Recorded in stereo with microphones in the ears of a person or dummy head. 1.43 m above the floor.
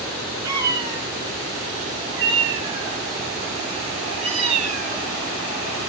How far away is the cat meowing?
About 8.5 m.